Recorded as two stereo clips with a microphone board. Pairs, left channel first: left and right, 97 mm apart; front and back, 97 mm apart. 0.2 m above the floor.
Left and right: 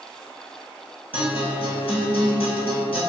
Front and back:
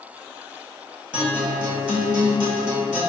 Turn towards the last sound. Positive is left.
turn(degrees=100)